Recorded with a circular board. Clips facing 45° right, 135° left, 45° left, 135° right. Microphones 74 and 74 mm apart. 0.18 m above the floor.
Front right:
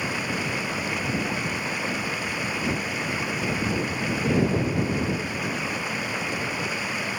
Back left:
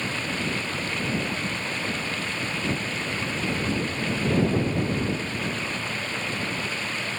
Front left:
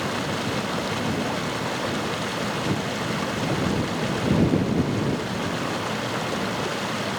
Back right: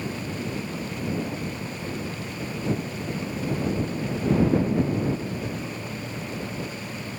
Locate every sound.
0.0 s running water: 35° left